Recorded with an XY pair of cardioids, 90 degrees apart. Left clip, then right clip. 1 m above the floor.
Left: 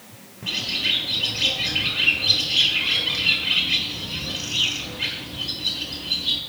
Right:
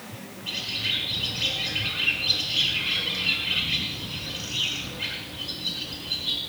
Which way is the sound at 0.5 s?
40° left.